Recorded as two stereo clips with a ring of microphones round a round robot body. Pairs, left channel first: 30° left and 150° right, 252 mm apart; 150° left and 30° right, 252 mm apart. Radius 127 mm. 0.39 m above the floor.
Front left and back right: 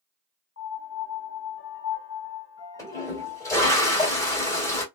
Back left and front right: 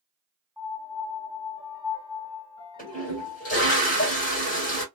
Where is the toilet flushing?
105° left, 1.8 m.